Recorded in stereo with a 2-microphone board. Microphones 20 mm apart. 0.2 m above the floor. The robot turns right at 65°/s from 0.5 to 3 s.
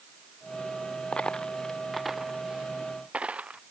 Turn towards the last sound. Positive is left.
turn(degrees=-70)  # may be behind; listen again after turning